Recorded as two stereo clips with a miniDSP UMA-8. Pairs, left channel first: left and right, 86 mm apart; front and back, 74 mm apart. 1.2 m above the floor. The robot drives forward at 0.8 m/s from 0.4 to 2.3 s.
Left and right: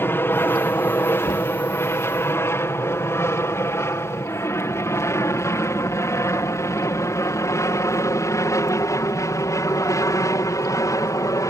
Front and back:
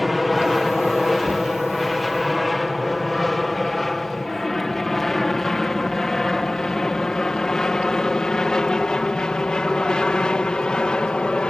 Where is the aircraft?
90° left; by 11.5 s 70° left.